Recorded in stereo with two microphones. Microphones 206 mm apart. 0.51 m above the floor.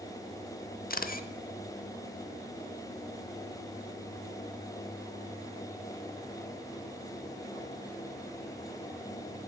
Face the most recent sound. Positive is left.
turn(degrees=45)  # may be behind; listen again after turning